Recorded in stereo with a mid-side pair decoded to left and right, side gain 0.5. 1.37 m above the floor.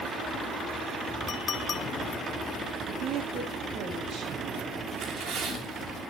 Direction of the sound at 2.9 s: 70° right.